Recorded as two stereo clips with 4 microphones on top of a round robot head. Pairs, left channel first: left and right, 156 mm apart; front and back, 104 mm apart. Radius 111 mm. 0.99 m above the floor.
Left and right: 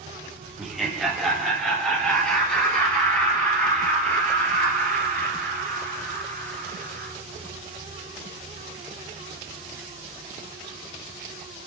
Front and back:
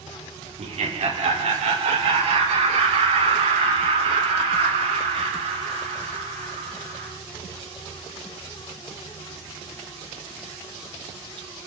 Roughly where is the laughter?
Behind.